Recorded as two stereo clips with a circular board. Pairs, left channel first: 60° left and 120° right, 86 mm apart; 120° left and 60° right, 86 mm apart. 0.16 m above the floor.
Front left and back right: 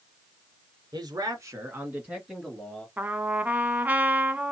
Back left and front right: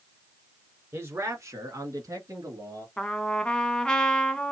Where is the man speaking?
115° right, 1.8 m; by 2.9 s 20° right, 1.9 m.